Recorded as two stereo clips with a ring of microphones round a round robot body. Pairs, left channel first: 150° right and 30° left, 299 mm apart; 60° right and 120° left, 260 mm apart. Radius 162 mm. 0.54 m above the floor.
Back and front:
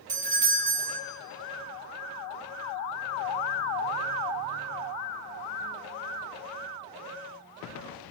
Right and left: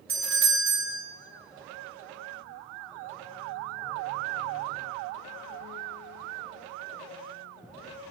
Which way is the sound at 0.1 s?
90° left.